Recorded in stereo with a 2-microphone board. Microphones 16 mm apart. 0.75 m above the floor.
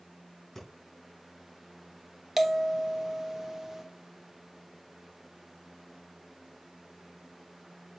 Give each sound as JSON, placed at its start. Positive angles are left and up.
{"t": 0.6, "sound": "breathing", "side_deg": 25, "distance_m": 4.5}
{"t": 2.4, "sound": "a bell", "side_deg": -25, "distance_m": 1.2}